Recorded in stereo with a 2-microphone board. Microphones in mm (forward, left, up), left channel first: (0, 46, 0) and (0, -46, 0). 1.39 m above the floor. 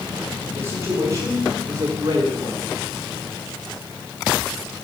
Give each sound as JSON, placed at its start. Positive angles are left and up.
{"t": 0.5, "sound": "a man speaking", "side_deg": -30, "distance_m": 4.5}